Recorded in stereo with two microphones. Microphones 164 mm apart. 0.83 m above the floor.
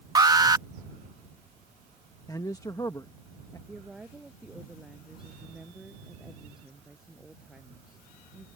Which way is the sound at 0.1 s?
25° right (ahead or behind).